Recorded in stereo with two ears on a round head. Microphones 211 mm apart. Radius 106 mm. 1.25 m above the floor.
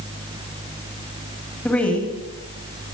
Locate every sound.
1.6 s a woman speaking: 5° left (ahead or behind), 6.5 m